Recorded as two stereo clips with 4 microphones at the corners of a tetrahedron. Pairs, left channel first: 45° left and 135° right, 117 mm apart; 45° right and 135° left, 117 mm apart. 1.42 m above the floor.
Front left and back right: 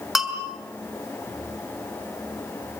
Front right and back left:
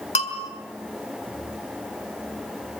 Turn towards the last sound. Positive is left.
turn(degrees=-45)